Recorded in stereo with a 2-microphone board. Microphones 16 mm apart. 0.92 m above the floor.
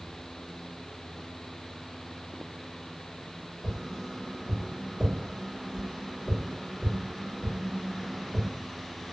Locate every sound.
3.6 s tapping: 70° right (ahead or behind), 2.0 m